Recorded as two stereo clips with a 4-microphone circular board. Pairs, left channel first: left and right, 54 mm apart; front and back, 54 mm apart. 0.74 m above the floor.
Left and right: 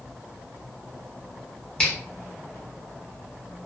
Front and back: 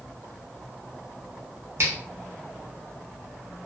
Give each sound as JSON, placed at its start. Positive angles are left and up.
{"t": 1.8, "sound": "a finger snap", "azimuth_deg": 160, "distance_m": 0.9}